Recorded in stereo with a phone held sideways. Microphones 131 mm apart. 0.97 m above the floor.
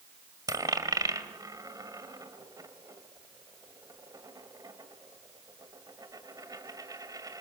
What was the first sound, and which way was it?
A dropped coin, 30° right (ahead or behind).